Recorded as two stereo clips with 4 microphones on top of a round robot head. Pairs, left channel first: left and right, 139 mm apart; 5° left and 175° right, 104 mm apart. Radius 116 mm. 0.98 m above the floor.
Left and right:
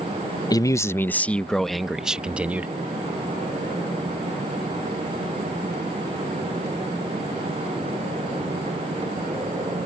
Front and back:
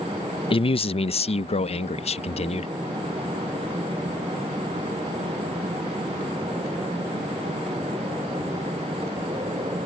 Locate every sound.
0.5 s a man speaking: 30° left; by 2.7 s 10° right